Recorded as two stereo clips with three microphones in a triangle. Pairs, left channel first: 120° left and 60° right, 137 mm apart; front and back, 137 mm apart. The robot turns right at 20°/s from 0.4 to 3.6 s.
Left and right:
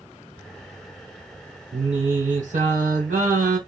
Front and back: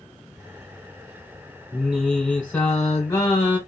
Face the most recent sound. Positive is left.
turn(degrees=-55)